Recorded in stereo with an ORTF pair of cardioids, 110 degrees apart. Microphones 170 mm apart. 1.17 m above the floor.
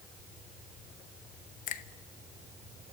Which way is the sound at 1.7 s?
55° left.